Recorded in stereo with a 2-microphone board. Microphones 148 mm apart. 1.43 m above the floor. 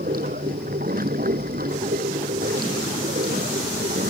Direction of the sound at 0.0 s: 85° right.